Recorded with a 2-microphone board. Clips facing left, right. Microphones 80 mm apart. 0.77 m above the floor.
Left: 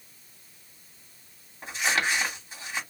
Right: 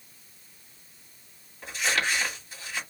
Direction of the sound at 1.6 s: 20° left (ahead or behind).